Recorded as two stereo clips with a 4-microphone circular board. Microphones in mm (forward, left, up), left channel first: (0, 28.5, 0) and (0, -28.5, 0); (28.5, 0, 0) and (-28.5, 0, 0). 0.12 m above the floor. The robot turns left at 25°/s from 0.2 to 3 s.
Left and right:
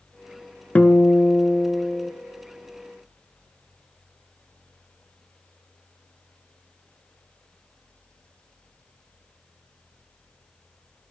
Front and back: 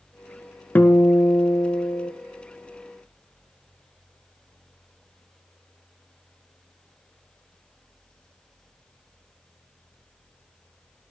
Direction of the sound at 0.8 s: 40° left.